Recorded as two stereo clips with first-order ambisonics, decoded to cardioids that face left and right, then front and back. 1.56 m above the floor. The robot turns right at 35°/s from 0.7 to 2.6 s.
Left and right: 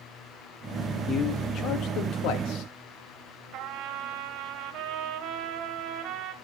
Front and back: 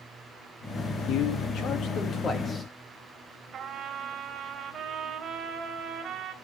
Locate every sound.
1.1 s a man speaking: 25° left, 2 m; by 2.7 s 75° left, 2 m
3.5 s a trumpet: 115° right, 2.5 m